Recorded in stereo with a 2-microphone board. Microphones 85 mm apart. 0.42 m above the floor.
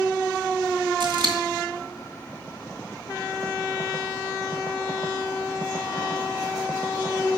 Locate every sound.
1.0 s scissors: 65° right (ahead or behind), 1.9 m